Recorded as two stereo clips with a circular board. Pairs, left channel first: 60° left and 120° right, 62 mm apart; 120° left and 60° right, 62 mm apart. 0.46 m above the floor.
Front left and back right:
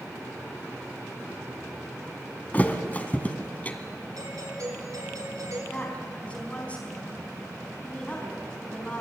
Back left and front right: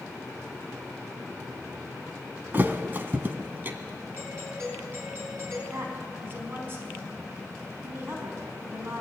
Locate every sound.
2.5 s a thud: 5° right, 2 m
4.2 s a doorbell: 115° right, 8.5 m
5.7 s a woman speaking: 10° right, 5 m